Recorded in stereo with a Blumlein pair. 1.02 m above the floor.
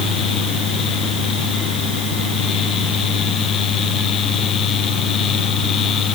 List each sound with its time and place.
0.0 s a fan: 30° left